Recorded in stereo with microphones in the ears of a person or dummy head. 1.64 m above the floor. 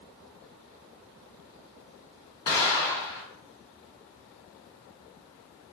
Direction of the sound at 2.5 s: 20° left (ahead or behind).